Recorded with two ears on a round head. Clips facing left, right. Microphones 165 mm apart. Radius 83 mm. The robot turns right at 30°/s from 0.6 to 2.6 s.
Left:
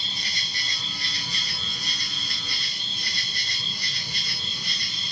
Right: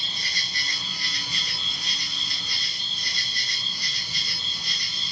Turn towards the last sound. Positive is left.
turn(degrees=80)